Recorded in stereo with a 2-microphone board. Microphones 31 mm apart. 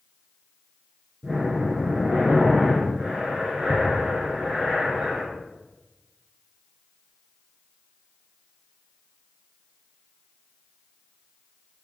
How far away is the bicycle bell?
I don't hear a bicycle bell.